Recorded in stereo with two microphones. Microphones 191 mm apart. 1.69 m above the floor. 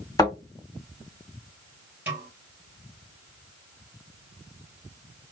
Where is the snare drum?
10° right (ahead or behind), 2.5 m.